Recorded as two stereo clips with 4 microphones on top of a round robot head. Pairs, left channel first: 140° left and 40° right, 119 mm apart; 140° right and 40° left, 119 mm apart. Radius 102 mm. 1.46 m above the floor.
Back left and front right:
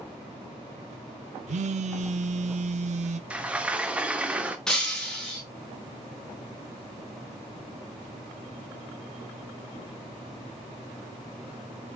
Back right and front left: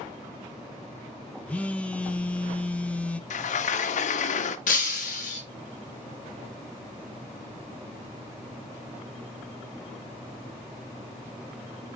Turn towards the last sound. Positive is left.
turn(degrees=-135)